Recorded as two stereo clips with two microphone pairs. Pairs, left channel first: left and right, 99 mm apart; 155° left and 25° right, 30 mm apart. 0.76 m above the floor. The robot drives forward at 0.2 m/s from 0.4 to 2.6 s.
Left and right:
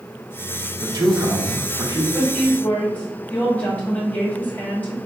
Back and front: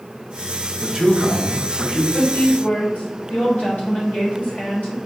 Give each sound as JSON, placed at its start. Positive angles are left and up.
{"t": 0.8, "sound": "a man speaking", "azimuth_deg": -80, "distance_m": 0.9}
{"t": 2.1, "sound": "a woman speaking", "azimuth_deg": 160, "distance_m": 1.5}